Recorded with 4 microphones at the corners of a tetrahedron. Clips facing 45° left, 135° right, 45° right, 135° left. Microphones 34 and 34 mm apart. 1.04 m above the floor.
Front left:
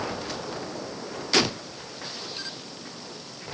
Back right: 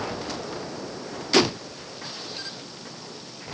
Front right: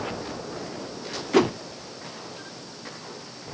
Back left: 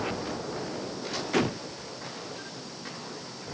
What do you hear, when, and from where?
1.3 s a whoosh: 65° right